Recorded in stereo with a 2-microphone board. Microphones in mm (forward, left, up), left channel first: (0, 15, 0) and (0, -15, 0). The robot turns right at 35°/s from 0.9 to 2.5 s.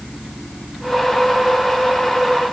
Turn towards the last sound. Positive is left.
No sound to turn to.